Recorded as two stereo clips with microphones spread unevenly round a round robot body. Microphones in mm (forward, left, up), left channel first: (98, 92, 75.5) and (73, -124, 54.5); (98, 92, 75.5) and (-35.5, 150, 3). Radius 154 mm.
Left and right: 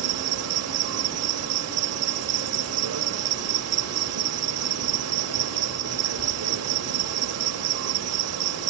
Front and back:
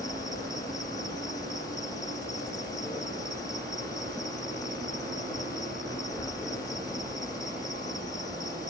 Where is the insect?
90° right, 0.9 m.